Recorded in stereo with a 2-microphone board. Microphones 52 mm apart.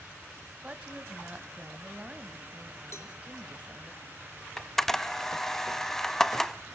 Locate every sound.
0.6 s a woman speaking: 25° right (ahead or behind), 2.0 m
2.9 s a cowbell: 60° left (ahead or behind), 3 m
4.6 s a camera shutter: 5° left (ahead or behind), 1.0 m